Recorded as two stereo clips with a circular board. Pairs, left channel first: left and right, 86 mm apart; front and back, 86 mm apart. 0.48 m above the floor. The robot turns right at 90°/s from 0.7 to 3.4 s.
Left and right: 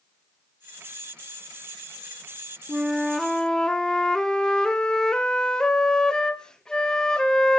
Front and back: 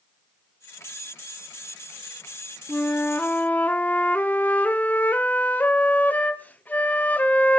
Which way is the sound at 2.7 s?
35° right.